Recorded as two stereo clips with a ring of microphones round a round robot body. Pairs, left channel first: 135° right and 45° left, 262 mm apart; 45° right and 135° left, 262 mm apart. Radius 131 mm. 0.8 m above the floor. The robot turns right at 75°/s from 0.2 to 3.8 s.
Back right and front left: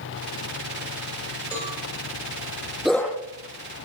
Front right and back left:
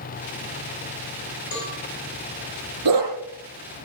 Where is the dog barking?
130° left, 6 m; by 3.1 s 150° left, 6 m.